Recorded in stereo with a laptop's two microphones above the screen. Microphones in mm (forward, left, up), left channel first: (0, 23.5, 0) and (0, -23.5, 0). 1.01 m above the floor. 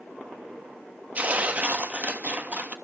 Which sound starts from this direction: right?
Tearing paper, at 1.1 s.